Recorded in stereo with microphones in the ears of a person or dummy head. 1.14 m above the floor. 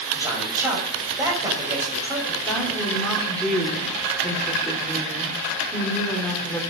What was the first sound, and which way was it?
A man speaking, 15° right (ahead or behind).